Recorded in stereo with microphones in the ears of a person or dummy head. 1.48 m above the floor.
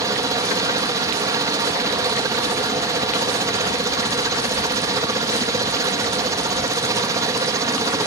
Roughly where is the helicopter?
Right.